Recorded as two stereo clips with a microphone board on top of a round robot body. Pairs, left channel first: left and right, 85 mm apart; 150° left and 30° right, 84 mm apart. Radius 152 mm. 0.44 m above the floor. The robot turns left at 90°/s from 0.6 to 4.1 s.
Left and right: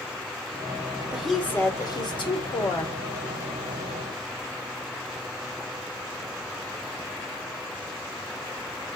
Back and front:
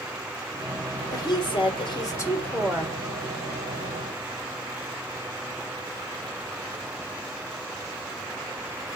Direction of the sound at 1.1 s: 165° right.